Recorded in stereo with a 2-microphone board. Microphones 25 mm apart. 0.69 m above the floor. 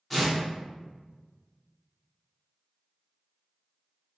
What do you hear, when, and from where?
0.1 s tearing paper: 5° left (ahead or behind), 1.3 m